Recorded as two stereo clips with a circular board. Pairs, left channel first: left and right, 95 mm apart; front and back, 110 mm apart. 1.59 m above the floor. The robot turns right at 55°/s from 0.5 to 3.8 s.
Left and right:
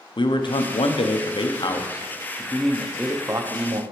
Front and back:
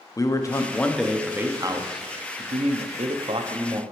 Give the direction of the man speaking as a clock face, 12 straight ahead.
10 o'clock.